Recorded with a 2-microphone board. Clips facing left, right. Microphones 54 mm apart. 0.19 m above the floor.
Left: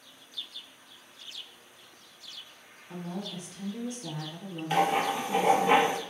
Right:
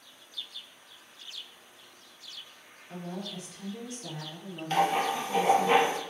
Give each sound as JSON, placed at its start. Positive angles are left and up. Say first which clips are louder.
{"t": 2.9, "sound": "a woman speaking", "louder": "left 1 dB", "side_deg": 5, "distance_m": 1.3}
{"t": 4.7, "sound": "writing", "louder": "even", "side_deg": 10, "distance_m": 0.7}